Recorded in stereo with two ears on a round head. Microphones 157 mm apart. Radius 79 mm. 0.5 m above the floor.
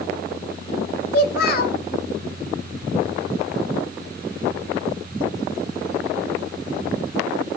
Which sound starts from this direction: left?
A child speaking, at 1.1 s.